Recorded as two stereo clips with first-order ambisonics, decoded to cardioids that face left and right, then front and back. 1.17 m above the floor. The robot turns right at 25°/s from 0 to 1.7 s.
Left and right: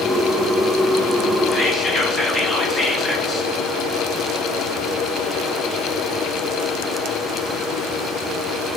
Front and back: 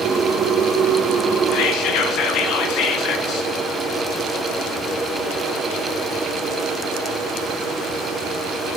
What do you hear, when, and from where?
1.5 s whispering: 15° left, 1.0 m; by 3.5 s 20° left, 1.0 m